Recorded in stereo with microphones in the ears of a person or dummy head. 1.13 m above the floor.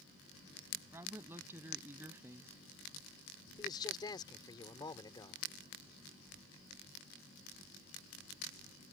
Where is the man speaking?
20° left (ahead or behind).